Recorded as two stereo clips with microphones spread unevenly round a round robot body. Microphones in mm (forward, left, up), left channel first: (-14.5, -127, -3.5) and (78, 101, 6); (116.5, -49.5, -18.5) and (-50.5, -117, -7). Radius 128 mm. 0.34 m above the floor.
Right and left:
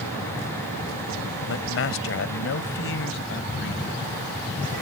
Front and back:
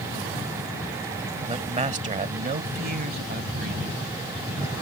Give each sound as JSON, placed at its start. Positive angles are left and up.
{"t": 1.5, "sound": "a man speaking", "azimuth_deg": -110}